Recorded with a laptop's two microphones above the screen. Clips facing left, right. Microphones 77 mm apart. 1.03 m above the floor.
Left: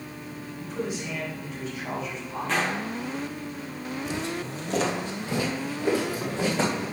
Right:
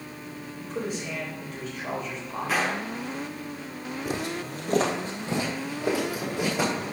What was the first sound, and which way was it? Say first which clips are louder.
A man speaking: even; 45° right (ahead or behind).